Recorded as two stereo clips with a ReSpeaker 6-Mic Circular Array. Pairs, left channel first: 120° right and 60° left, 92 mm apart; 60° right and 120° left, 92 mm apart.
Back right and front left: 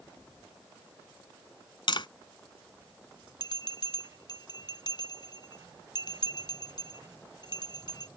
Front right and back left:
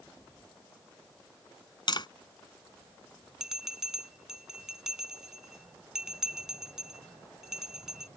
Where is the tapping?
90° right.